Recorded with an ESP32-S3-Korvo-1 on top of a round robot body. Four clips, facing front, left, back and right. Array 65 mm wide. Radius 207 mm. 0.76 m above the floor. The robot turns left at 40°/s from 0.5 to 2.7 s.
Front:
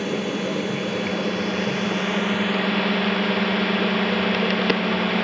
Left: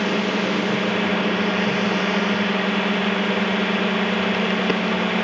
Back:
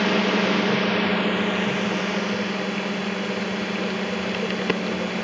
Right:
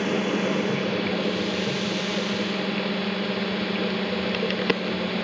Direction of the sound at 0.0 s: 145° left.